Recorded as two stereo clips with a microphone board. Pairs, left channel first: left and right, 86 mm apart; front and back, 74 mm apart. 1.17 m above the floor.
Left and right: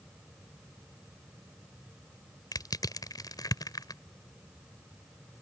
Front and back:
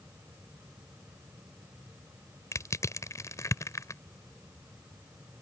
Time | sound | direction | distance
2.5 | crushing | 45° left | ?